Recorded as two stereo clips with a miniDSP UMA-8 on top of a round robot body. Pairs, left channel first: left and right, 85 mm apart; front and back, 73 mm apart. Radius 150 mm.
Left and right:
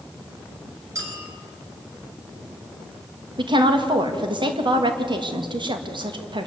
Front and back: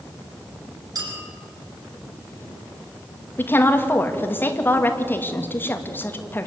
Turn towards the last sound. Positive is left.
turn(degrees=-65)